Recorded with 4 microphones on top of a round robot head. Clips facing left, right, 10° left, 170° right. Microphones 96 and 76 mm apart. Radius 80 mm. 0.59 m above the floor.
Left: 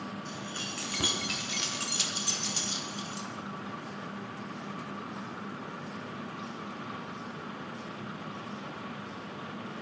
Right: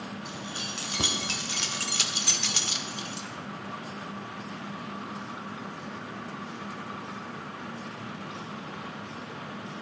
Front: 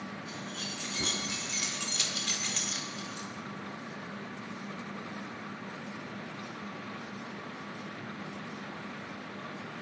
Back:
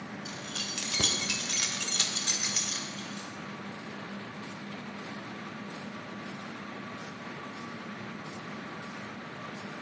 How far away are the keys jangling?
About 3 m.